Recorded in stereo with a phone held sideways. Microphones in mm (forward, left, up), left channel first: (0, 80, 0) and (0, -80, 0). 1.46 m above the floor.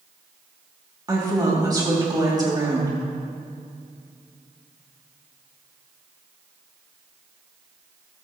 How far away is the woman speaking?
About 3 m.